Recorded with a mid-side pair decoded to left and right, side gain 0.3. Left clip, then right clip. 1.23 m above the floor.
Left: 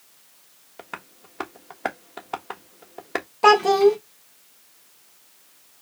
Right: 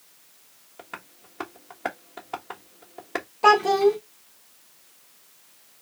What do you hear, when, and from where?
0.8 s tapping: 40° left, 1.2 m
3.4 s a child speaking: 40° left, 1.5 m